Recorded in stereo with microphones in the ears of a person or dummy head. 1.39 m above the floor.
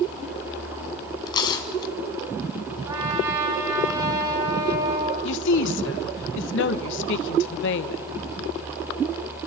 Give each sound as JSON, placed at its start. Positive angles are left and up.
{"t": 1.3, "sound": "tearing paper", "side_deg": 25, "distance_m": 2.5}
{"t": 2.8, "sound": "a trumpet", "side_deg": -25, "distance_m": 8.0}
{"t": 5.2, "sound": "a woman speaking", "side_deg": 70, "distance_m": 1.3}